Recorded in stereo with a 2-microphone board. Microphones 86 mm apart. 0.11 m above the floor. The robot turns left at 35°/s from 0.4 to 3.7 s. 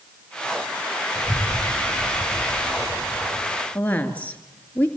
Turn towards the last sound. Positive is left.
turn(degrees=20)  # may be behind; listen again after turning